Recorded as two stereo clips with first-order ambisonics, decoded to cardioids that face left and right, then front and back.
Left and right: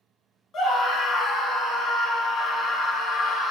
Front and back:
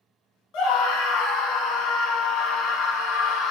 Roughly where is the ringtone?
No ringtone in this recording.